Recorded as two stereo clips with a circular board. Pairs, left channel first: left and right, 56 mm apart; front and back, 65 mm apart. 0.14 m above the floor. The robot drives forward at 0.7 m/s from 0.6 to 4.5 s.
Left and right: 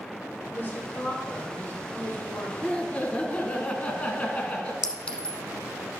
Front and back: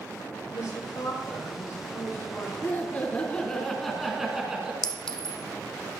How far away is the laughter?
About 1.9 m.